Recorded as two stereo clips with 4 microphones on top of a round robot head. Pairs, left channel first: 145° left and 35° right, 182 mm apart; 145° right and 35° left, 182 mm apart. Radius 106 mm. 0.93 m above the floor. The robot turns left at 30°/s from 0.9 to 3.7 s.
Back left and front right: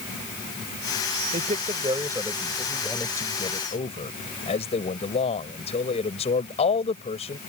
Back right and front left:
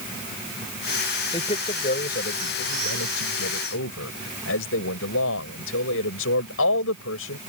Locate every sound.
1.3 s a man speaking: 85° right; by 7.4 s 155° right